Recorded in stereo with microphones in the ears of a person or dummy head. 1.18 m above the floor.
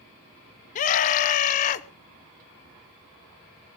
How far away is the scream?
About 1.4 m.